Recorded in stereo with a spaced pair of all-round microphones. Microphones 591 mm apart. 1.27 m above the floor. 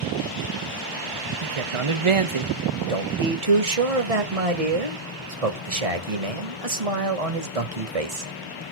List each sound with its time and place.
1.4 s a man speaking: 55° right (ahead or behind), 0.9 m
2.9 s a man speaking: 75° right (ahead or behind), 1.8 m